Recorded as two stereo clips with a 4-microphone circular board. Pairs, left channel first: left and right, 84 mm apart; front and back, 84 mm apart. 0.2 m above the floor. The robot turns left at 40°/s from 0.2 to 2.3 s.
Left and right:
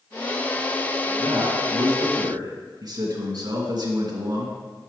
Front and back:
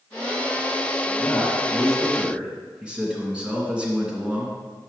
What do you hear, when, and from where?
1.2 s a man speaking: 60° right, 2.5 m; by 4.6 s 105° right, 2.5 m